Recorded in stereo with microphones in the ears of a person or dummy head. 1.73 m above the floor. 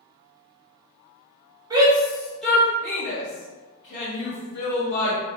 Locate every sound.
1.7 s a shout: 25° right (ahead or behind), 0.8 m; by 5.2 s 40° left (ahead or behind), 2.0 m